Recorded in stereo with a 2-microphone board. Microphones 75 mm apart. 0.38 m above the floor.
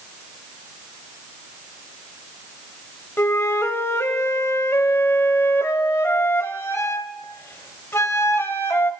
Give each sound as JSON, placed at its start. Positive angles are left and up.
{"t": 3.2, "sound": "a flute", "side_deg": 35, "distance_m": 0.5}